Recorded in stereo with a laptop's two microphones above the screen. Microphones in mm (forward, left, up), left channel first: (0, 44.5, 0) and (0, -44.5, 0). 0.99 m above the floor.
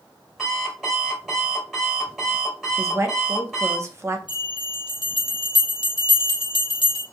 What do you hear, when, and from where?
0.4 s an alarm clock: 5° right (ahead or behind), 3 m
2.8 s a woman speaking: 30° right (ahead or behind), 0.7 m
4.3 s a bell: 70° left (ahead or behind), 1.5 m